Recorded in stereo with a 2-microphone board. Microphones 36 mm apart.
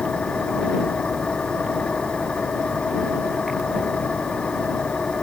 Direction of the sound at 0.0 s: 25° left (ahead or behind).